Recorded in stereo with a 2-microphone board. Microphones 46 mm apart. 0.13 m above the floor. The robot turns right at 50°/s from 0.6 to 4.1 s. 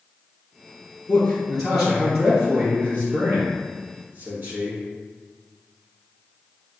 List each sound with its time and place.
1.1 s a man speaking: 140° left, 1.8 m; by 4.8 s 70° right, 1.8 m